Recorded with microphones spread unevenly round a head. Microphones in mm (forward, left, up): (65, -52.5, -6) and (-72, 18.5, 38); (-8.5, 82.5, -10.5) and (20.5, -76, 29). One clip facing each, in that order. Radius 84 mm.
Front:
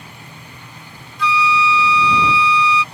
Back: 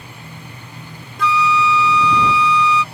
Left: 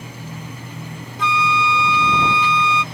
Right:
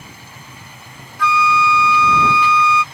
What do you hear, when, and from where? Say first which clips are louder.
0.0 s a machine running: back 2 dB, left 7 dB; 70° left
1.2 s a flute: back 1 dB, right 4 dB; 175° left